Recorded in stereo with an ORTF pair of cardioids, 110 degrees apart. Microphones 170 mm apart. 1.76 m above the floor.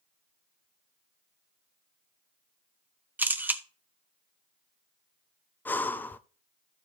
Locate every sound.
3.2 s a camera shutter: 10° right, 1.0 m
5.7 s breathing: 10° left, 0.6 m